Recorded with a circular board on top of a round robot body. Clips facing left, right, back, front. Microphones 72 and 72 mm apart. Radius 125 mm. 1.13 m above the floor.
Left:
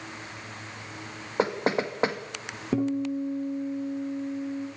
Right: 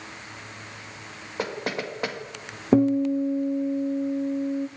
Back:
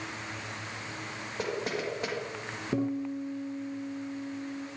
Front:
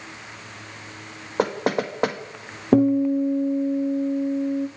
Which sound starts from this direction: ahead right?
A guitar, at 2.7 s.